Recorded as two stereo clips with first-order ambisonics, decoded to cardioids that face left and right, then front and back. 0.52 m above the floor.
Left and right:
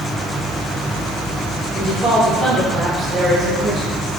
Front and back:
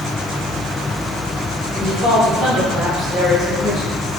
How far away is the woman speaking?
About 1.3 m.